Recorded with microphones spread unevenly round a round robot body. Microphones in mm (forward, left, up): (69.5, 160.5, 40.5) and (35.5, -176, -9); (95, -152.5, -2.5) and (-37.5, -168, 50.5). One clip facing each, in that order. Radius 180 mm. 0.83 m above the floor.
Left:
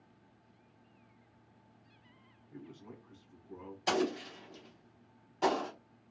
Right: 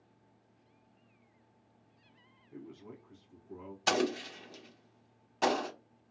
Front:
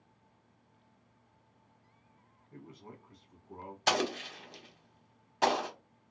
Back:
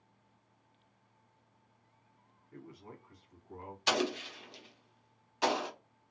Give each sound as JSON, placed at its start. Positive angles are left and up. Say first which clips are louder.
{"t": 2.5, "sound": "a man speaking", "louder": "right 2 dB, even", "azimuth_deg": -10, "distance_m": 1.4}
{"t": 3.9, "sound": "an explosion", "louder": "right 1 dB, front 1 dB", "azimuth_deg": -35, "distance_m": 1.1}